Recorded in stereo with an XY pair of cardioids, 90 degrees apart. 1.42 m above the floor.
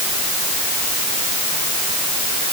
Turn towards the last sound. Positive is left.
No sound to turn to.